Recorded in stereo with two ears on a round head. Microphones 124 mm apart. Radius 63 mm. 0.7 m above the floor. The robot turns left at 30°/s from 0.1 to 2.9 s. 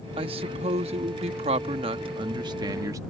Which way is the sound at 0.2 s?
60° right.